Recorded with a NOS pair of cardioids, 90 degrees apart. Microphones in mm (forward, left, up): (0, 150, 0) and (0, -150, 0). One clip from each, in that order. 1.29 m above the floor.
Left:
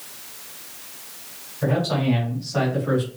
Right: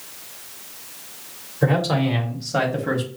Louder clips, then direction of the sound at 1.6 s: Right 2 dB; 60° right.